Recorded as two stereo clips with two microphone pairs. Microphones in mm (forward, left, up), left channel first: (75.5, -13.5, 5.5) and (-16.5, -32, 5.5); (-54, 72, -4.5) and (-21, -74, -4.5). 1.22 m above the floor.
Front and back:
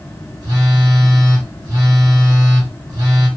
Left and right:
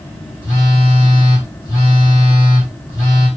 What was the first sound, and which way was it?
A phone buzzing, 160° left.